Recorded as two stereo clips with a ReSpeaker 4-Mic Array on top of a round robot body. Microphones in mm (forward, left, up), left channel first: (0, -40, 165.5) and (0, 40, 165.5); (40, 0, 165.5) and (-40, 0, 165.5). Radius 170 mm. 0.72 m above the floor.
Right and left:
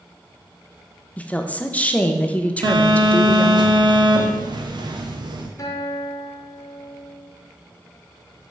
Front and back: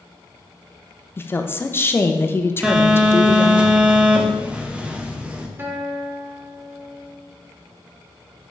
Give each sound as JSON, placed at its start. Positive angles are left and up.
{"t": 1.2, "sound": "a woman speaking", "azimuth_deg": -30, "distance_m": 0.9}
{"t": 2.6, "sound": "a phone buzzing", "azimuth_deg": 105, "distance_m": 0.9}
{"t": 5.6, "sound": "a guitar", "azimuth_deg": -120, "distance_m": 1.3}